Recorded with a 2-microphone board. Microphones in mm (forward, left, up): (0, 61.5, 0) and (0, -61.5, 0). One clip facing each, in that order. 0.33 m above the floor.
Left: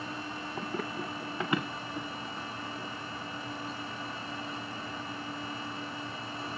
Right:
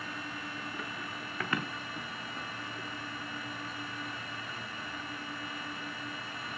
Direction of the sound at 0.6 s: 55° left (ahead or behind).